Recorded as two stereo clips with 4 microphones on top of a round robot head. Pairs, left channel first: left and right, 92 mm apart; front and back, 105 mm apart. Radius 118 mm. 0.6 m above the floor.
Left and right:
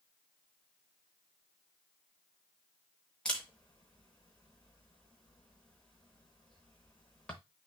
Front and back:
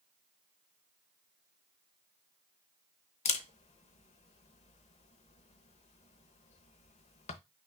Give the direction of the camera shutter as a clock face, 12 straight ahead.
12 o'clock.